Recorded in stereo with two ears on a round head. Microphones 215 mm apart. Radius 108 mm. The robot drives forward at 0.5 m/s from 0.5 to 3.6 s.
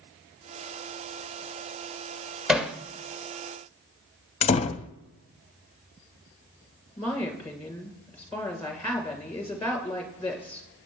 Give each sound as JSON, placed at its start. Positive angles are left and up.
{"t": 2.5, "sound": "hammering", "side_deg": -5, "distance_m": 1.0}
{"t": 4.4, "sound": "a door slam", "side_deg": 30, "distance_m": 0.5}
{"t": 7.0, "sound": "a woman speaking", "side_deg": 5, "distance_m": 3.0}